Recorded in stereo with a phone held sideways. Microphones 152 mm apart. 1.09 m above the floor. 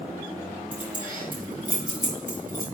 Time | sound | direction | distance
0.7 | keys jangling | 10° right (ahead or behind) | 4.5 m